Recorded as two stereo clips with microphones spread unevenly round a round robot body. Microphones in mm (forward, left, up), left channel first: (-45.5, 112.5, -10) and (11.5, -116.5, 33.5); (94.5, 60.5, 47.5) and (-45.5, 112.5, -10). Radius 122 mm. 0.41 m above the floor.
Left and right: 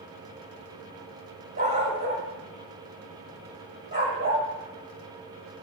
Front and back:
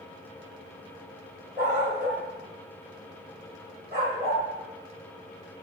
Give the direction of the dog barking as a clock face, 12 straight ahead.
4 o'clock.